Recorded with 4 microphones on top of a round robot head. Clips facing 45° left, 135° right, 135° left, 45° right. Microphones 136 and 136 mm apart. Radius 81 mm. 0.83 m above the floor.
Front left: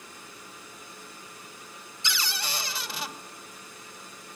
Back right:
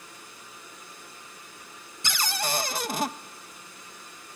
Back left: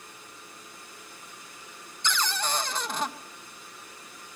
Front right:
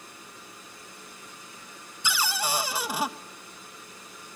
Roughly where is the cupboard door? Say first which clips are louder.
Back right 5 dB, front right 1 dB; behind right.